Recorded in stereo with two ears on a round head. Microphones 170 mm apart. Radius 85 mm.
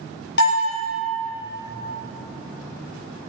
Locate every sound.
0.4 s a bell: 65° left (ahead or behind), 3.5 m